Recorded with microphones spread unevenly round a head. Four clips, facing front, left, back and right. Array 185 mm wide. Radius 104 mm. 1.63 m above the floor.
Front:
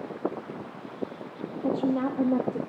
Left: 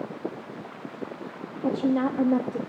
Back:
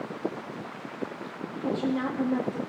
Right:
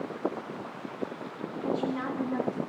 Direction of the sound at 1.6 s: 60° left.